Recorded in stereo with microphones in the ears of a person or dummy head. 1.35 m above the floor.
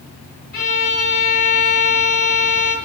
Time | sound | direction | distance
0.5 | a violin | 50° left (ahead or behind) | 4 m